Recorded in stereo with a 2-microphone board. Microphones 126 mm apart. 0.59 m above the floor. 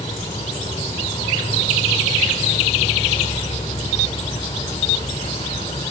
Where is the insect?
60° left (ahead or behind).